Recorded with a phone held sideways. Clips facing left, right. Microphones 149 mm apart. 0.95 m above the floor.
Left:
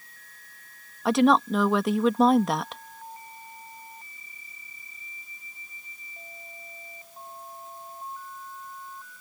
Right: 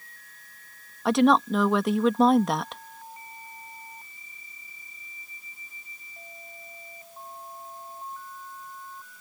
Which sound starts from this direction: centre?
A woman speaking, at 1.1 s.